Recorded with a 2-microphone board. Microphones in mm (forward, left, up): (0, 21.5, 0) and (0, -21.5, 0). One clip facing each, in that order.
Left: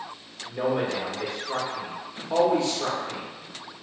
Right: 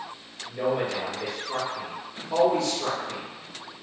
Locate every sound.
0.5 s a man speaking: 30° left (ahead or behind), 1.0 m